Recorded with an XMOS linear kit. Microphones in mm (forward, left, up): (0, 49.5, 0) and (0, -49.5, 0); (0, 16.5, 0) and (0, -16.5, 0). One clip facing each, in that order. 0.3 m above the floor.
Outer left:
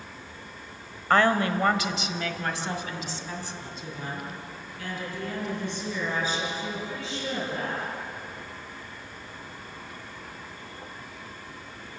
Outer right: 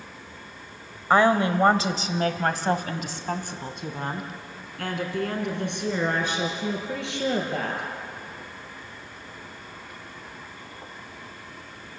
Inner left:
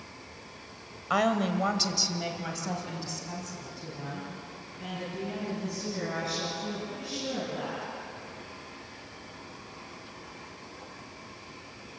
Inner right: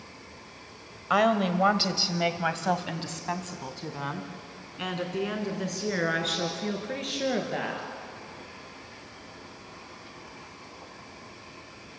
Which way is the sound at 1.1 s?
15° right (ahead or behind).